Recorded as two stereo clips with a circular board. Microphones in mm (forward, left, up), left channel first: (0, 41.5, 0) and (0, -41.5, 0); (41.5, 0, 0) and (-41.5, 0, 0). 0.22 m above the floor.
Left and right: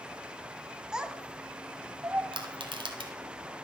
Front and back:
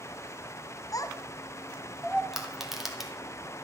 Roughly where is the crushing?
Right.